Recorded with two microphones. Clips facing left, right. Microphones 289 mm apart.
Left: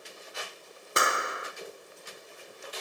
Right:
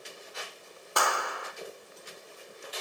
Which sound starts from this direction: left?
A clap, at 1.0 s.